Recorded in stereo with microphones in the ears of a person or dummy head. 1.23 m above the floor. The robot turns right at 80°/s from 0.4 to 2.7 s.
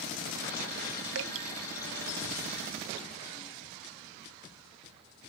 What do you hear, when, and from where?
1.1 s dripping: 65° right (ahead or behind); by 1.5 s 60° right (ahead or behind)